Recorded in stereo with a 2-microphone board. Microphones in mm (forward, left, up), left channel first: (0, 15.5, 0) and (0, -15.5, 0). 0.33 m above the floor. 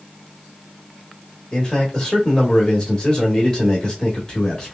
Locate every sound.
1.5 s a man speaking: 20° left (ahead or behind), 1.1 m